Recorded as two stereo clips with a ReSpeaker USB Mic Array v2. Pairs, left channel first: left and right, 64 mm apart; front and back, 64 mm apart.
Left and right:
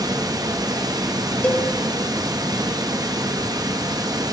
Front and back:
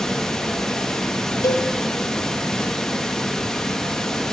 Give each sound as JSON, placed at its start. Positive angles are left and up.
{"t": 0.0, "sound": "running water", "azimuth_deg": -80, "distance_m": 0.7}
{"t": 1.4, "sound": "a cowbell", "azimuth_deg": 25, "distance_m": 0.7}